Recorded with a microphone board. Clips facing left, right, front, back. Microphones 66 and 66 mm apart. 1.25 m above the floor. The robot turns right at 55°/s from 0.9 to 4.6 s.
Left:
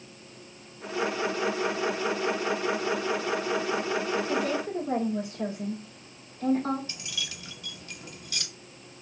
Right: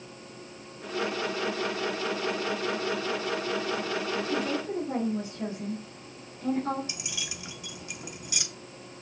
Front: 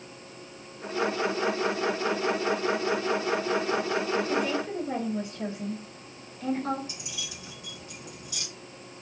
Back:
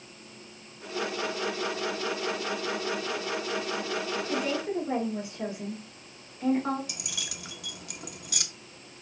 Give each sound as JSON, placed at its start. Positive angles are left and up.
{"t": 4.3, "sound": "a woman speaking", "azimuth_deg": 85, "distance_m": 3.0}
{"t": 6.9, "sound": "keys jangling", "azimuth_deg": -165, "distance_m": 0.8}